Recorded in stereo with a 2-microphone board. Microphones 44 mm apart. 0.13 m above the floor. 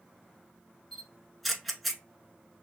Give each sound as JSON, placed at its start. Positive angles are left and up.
{"t": 0.9, "sound": "a camera shutter", "side_deg": 0, "distance_m": 0.9}